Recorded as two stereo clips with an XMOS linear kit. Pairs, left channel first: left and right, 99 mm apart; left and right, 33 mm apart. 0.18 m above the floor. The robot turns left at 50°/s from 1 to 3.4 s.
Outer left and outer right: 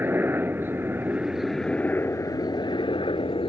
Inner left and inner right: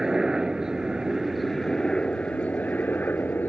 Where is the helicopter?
155° right; by 3.5 s 85° left.